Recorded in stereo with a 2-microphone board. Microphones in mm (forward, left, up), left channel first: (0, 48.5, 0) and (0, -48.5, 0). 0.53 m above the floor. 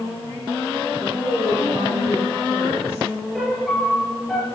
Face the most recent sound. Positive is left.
turn(degrees=0)  # may be behind; listen again after turning